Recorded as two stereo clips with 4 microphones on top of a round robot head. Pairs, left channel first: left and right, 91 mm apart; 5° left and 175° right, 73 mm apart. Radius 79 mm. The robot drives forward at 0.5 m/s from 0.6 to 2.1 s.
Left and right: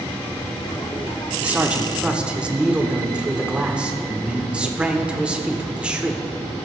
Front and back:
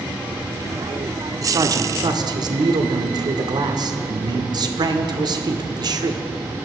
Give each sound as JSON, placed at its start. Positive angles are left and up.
{"t": 1.4, "sound": "a man speaking", "azimuth_deg": -160, "distance_m": 1.0}